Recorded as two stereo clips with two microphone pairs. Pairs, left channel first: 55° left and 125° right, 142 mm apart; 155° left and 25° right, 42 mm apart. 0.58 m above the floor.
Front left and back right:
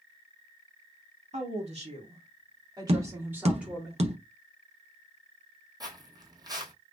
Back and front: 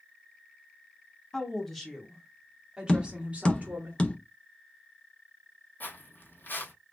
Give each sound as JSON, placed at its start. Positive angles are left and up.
{"t": 1.3, "sound": "a woman speaking", "azimuth_deg": -130, "distance_m": 1.8}
{"t": 2.9, "sound": "tapping", "azimuth_deg": -155, "distance_m": 0.8}
{"t": 5.8, "sound": "footsteps", "azimuth_deg": 175, "distance_m": 1.3}